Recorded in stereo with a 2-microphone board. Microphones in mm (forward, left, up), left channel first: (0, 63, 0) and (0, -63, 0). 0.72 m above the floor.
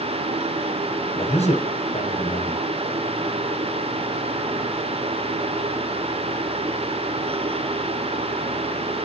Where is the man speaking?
60° left (ahead or behind), 4 m.